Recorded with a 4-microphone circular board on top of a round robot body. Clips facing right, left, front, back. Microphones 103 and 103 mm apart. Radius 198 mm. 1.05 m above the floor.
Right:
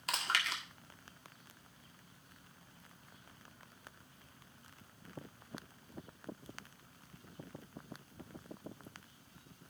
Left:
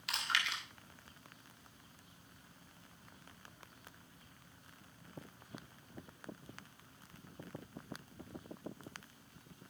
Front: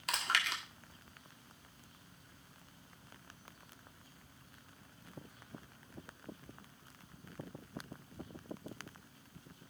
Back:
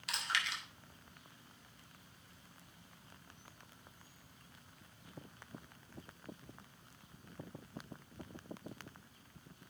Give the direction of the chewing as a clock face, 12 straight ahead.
1 o'clock.